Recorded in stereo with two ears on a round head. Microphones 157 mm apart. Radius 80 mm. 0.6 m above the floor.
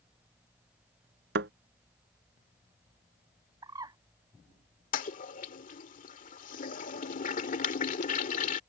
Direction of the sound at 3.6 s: 25° right (ahead or behind).